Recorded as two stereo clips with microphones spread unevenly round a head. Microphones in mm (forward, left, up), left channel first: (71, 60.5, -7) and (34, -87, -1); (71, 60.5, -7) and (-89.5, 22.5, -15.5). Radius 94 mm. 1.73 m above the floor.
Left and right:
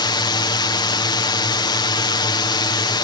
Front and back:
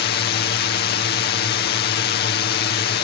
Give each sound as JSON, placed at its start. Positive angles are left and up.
{"t": 0.0, "sound": "a drone", "azimuth_deg": 20}